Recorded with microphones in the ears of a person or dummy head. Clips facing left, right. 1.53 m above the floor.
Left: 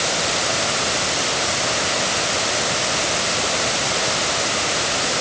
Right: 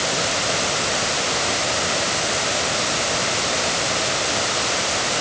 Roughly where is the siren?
No siren in this recording.